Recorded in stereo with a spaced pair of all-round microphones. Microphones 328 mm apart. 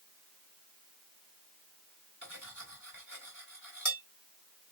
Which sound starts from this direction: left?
Cutlery clinking, at 2.2 s.